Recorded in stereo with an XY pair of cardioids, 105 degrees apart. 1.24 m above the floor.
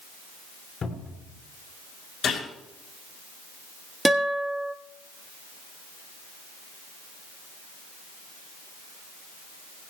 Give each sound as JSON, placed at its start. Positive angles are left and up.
{"t": 0.8, "sound": "a cupboard door", "azimuth_deg": 50, "distance_m": 6.5}
{"t": 2.2, "sound": "a gunshot", "azimuth_deg": 50, "distance_m": 8.0}
{"t": 4.0, "sound": "a guitar", "azimuth_deg": -10, "distance_m": 1.4}